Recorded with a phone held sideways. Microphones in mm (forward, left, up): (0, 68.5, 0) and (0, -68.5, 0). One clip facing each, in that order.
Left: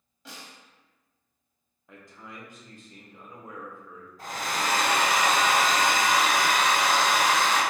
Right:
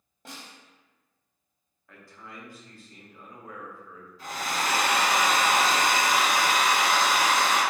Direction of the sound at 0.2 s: 50° right (ahead or behind).